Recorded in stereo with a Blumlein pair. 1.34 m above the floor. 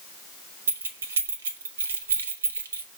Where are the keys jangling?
70° right, 1.5 m.